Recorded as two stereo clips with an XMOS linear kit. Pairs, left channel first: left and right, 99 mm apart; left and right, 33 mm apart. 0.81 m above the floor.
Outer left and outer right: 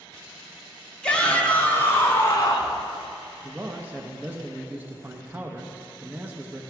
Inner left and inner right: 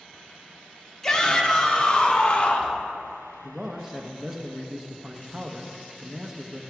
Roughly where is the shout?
Centre.